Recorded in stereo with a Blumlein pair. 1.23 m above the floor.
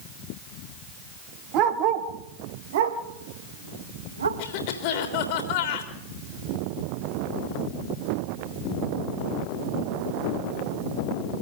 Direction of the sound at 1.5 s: 40° right.